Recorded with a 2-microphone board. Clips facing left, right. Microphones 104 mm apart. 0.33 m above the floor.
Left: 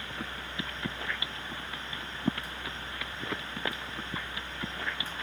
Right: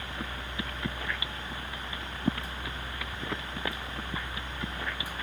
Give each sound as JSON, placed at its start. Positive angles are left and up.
{"t": 0.0, "sound": "a helicopter", "side_deg": -60}